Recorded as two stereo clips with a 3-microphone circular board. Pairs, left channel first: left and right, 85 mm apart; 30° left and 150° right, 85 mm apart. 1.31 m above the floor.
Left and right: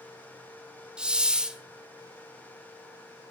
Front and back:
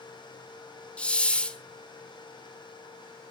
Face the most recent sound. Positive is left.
turn(degrees=-30)